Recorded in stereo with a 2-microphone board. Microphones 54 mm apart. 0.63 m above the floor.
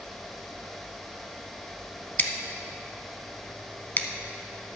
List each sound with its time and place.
2.2 s scissors: 40° left (ahead or behind), 0.8 m